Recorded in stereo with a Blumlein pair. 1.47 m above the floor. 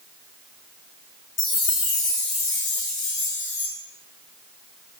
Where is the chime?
30° left, 0.7 m.